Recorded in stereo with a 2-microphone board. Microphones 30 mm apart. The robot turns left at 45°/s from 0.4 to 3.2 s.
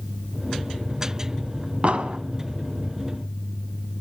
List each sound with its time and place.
1.8 s an explosion: 50° right (ahead or behind), 0.9 m; by 2.2 s 35° right (ahead or behind), 0.9 m